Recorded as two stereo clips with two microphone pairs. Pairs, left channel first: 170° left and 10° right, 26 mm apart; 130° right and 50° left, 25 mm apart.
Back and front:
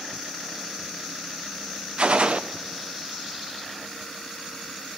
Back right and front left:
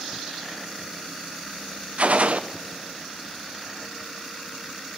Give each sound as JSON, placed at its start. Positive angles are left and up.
{"t": 2.0, "sound": "a gunshot", "azimuth_deg": 25, "distance_m": 0.6}